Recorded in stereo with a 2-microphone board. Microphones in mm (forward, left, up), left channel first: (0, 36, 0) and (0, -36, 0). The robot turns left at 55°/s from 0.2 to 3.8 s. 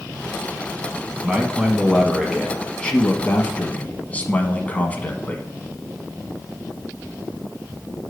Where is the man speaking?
15° right (ahead or behind), 1.0 m; by 5.4 s 20° left (ahead or behind), 1.0 m.